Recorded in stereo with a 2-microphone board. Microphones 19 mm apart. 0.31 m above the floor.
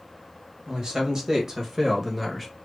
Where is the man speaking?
45° right (ahead or behind), 1.4 m; by 2.5 s 5° right (ahead or behind), 1.0 m.